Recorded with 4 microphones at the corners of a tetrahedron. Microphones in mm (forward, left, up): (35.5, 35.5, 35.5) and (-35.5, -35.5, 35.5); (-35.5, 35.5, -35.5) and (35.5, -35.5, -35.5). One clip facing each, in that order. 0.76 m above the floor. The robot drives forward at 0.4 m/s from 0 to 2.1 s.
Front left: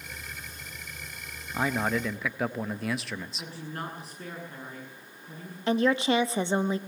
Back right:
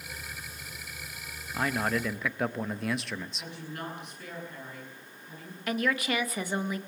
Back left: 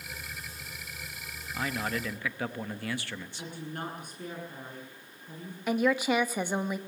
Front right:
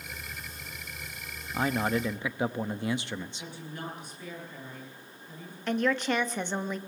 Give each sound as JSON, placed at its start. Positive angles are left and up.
{"t": 1.5, "sound": "a man speaking", "azimuth_deg": -25, "distance_m": 0.8}
{"t": 3.4, "sound": "a woman speaking", "azimuth_deg": 95, "distance_m": 9.0}
{"t": 5.7, "sound": "a woman speaking", "azimuth_deg": 60, "distance_m": 0.9}